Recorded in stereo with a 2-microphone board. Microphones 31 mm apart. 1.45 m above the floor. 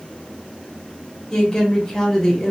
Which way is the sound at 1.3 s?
15° left (ahead or behind).